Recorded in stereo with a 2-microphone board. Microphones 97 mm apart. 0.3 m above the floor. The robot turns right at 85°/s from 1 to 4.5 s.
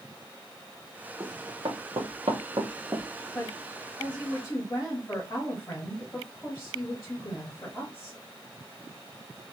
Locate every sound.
1.2 s running footsteps: 35° right (ahead or behind), 1.9 m; by 3.0 s 20° right (ahead or behind), 1.3 m
3.4 s a woman speaking: 30° left, 1.8 m; by 8.2 s 130° left, 1.8 m